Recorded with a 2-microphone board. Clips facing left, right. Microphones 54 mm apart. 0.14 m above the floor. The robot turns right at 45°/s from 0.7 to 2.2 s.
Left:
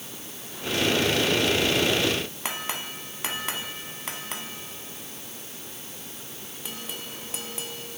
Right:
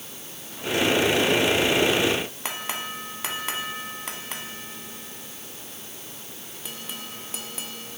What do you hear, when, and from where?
Only background noise.